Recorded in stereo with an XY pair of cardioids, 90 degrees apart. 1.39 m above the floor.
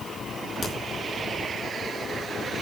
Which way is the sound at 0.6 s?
35° left.